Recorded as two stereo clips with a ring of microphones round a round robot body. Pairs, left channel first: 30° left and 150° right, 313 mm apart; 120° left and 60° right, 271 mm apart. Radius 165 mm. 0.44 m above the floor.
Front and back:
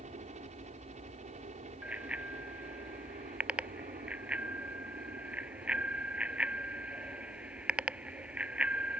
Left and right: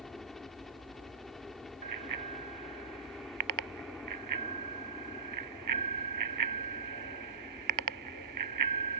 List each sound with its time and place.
0.0 s a helicopter: 150° right
1.8 s a bicycle bell: 65° right